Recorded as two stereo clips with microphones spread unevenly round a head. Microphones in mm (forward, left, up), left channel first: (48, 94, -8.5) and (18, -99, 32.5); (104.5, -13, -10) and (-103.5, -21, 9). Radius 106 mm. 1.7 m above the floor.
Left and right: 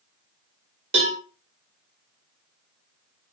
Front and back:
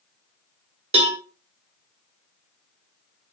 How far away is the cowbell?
About 0.6 m.